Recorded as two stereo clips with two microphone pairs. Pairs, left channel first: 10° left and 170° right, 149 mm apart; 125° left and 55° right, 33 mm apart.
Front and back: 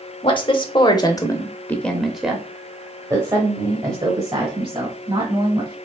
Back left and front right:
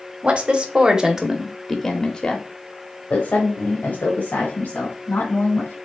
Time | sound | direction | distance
0.2 | a woman speaking | 25° right | 1.2 m